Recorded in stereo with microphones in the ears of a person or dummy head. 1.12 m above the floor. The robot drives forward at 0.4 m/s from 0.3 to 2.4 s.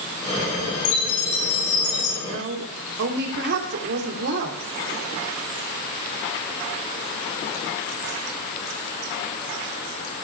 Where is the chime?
80° left, 6 m; by 2.1 s 75° left (ahead or behind), 6 m.